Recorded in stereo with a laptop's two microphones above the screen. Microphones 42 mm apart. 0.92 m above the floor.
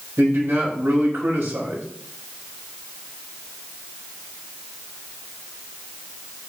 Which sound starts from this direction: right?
A man speaking, at 0.2 s.